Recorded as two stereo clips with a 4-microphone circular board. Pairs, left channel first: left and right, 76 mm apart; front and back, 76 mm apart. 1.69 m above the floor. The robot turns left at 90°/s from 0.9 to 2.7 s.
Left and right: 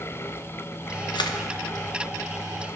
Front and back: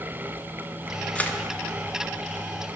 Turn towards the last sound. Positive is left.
turn(degrees=-65)